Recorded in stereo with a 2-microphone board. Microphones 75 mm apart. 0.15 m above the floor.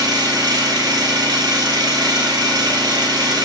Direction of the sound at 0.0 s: 70° right (ahead or behind).